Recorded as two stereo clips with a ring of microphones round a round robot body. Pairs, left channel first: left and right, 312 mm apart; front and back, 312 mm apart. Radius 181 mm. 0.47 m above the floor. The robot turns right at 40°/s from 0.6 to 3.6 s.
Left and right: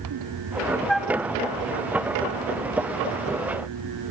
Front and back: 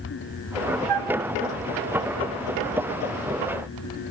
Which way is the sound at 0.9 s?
175° left.